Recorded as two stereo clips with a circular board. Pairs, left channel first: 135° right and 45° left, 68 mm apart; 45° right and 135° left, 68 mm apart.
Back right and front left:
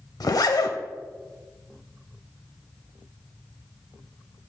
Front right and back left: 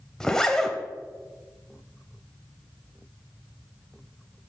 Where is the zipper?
125° right, 0.6 m.